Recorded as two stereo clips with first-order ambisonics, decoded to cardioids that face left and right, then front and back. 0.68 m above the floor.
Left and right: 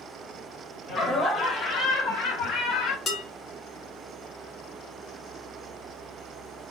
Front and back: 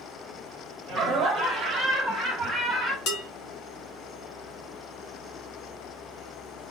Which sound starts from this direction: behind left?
Laughter, at 0.9 s.